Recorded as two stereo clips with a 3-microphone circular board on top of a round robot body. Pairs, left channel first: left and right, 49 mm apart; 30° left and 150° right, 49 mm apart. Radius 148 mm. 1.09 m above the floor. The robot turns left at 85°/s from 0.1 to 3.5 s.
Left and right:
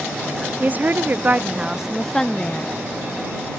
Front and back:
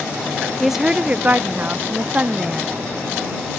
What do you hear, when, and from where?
0.6 s a woman speaking: 60° right; by 2.7 s 120° left